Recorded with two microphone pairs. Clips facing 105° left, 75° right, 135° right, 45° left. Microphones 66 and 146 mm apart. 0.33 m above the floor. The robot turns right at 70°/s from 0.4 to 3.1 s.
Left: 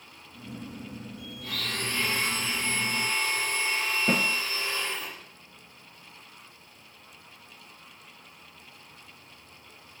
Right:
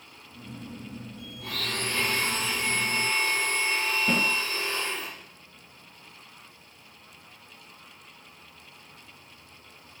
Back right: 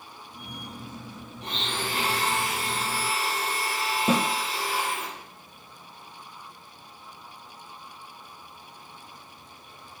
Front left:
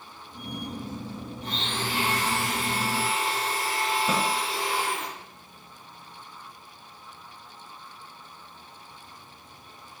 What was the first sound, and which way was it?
A blender, 130° right.